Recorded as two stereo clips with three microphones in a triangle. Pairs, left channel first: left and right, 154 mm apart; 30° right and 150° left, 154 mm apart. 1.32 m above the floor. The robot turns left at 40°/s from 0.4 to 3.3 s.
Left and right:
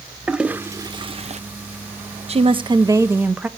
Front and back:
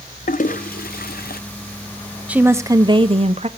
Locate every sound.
0.3 s a toilet flushing: 5° right, 0.6 m; by 1.4 s 45° right, 0.6 m
2.3 s a woman speaking: 130° right, 0.9 m; by 3.5 s 170° right, 0.9 m